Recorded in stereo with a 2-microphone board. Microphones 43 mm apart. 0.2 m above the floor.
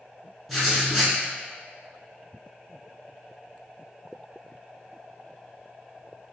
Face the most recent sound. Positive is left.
turn(degrees=0)  # may be behind; listen again after turning